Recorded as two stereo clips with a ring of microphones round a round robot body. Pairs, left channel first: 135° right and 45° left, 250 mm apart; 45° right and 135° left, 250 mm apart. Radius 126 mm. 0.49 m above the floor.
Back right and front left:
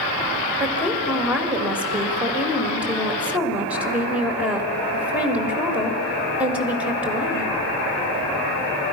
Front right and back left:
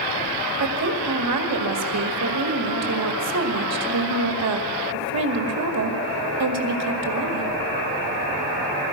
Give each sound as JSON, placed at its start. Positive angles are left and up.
{"t": 0.6, "sound": "a woman speaking", "azimuth_deg": 130, "distance_m": 2.5}